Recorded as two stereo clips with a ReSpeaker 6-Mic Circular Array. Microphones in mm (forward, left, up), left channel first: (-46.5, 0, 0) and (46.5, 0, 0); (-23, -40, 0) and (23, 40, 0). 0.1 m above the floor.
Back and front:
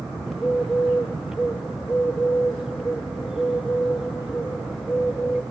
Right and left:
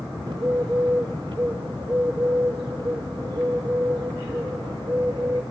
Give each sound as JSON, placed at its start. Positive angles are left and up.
{"t": 0.3, "sound": "a bird", "azimuth_deg": 85, "distance_m": 1.6}